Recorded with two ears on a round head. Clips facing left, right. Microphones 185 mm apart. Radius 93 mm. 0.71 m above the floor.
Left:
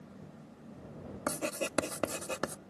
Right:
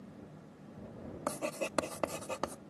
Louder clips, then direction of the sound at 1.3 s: Left 2 dB; 15° left (ahead or behind).